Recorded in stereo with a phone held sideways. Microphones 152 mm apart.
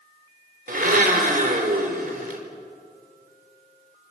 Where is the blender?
70° right (ahead or behind), 2.5 m.